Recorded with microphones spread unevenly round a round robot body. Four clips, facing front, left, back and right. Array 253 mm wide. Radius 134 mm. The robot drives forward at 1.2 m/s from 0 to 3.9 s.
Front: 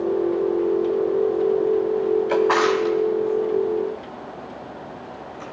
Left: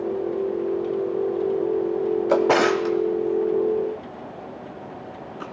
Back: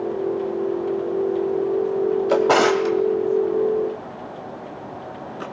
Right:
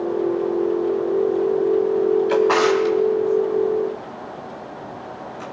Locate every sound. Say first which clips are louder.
2.3 s a drawer: right 2 dB, back 4 dB; 110° left, 0.7 m; by 5.4 s 165° left, 2 m